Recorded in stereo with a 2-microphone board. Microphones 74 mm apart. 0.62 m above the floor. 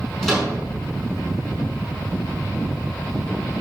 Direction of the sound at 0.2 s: 5° left (ahead or behind).